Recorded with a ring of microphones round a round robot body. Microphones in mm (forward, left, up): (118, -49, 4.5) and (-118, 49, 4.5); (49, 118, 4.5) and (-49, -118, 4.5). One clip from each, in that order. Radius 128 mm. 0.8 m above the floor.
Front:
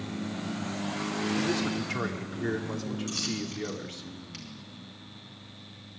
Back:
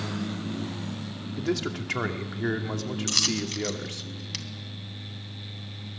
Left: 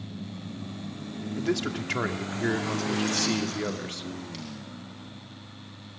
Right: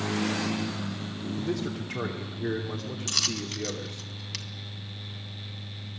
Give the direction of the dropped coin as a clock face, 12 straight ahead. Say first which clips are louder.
Back 10 dB, even; 5 o'clock.